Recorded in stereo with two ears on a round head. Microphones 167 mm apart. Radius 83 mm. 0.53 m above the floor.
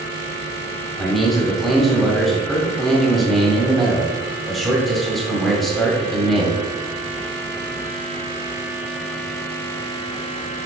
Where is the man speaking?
Centre (ahead or behind), 1.9 m.